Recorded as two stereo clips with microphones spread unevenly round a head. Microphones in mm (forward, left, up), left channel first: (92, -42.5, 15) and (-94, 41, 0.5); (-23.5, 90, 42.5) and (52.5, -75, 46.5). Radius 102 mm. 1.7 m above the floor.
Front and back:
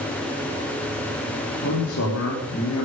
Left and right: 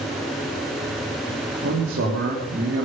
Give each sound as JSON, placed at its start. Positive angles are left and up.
{"t": 1.6, "sound": "a man speaking", "azimuth_deg": -45, "distance_m": 4.0}